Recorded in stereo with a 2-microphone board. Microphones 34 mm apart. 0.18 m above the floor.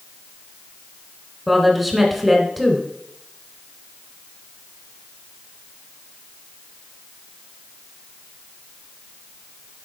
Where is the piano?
No piano in this recording.